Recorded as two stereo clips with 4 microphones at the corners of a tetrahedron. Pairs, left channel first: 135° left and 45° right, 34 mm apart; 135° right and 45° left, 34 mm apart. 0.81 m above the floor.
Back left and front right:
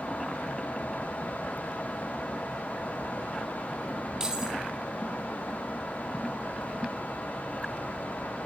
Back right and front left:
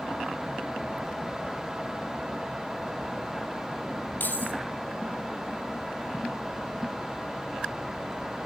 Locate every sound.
4.2 s keys jangling: 115° right, 4.5 m